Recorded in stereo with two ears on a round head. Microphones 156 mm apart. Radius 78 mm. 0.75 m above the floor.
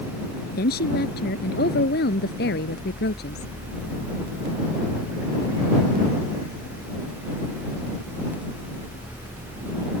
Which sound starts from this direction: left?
A woman speaking, at 0.6 s.